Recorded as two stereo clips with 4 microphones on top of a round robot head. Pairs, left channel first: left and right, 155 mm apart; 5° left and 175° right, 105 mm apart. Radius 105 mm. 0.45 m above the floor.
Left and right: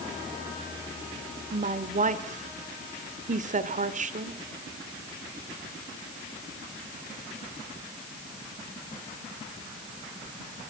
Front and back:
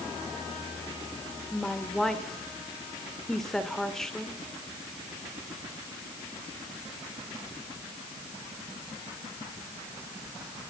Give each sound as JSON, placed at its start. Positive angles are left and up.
{"t": 1.5, "sound": "a woman speaking", "azimuth_deg": -80, "distance_m": 2.0}